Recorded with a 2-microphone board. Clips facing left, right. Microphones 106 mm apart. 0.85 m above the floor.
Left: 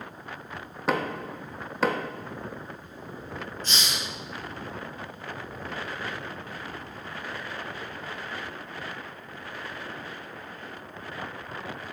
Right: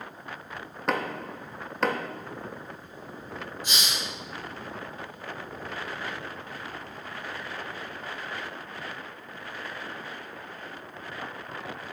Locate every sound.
0.9 s knocking: 5° left (ahead or behind), 0.9 m
3.6 s a hiss: 10° right (ahead or behind), 4.5 m